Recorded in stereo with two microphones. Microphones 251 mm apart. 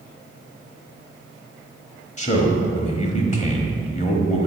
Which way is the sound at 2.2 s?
25° left (ahead or behind).